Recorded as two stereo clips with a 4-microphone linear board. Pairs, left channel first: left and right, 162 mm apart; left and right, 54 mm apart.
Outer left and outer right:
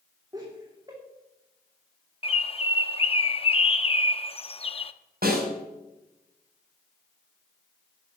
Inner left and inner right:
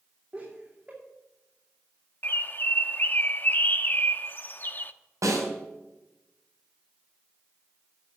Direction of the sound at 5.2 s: 75° right (ahead or behind).